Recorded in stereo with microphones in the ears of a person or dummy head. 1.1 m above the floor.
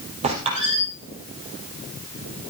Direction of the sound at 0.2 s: 35° right (ahead or behind).